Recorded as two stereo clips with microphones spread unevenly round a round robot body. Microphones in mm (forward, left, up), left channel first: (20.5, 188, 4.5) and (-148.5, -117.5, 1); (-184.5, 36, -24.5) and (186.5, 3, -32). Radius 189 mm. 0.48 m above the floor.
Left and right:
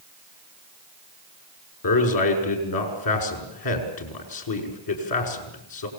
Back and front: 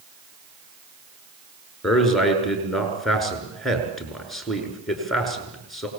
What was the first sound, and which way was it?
A man speaking, 85° left.